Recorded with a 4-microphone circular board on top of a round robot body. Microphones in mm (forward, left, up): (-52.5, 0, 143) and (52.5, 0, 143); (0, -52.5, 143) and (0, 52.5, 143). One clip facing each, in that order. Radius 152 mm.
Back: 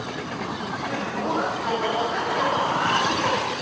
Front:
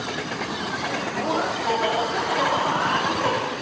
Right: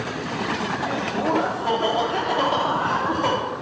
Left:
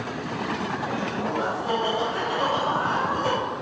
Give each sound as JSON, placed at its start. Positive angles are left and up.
{"t": 0.8, "sound": "laughter", "azimuth_deg": -85, "distance_m": 4.0}